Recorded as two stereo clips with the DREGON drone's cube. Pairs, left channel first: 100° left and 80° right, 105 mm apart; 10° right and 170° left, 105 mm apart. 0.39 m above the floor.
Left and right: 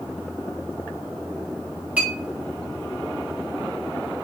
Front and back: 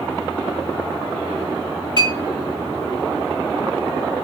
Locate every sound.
2.0 s a clink: 155° right, 2 m